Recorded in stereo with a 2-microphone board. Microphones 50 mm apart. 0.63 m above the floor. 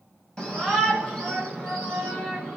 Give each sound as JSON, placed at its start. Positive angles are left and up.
{"t": 0.4, "sound": "a shout", "side_deg": 15, "distance_m": 3.5}